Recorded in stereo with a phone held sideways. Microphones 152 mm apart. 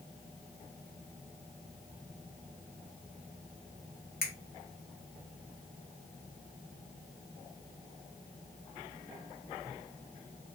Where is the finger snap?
80° left, 1.6 m.